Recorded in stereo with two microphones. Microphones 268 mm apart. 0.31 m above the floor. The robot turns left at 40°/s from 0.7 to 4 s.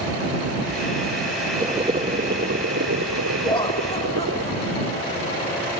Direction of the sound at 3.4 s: 20° left (ahead or behind).